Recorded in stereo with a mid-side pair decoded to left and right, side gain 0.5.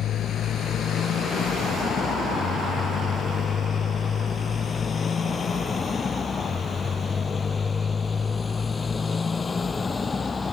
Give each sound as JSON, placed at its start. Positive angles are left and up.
{"t": 0.0, "sound": "a motorcycle", "azimuth_deg": 60}